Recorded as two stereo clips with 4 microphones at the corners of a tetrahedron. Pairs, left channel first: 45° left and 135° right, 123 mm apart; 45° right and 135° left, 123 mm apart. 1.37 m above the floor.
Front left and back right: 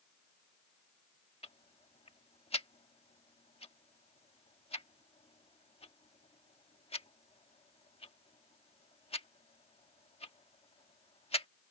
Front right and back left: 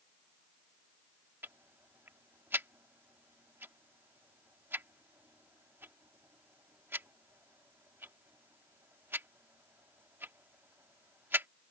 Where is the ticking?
65° left.